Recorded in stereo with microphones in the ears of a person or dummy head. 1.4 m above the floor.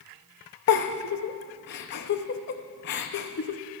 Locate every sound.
0.7 s a giggle: 50° left (ahead or behind), 0.6 m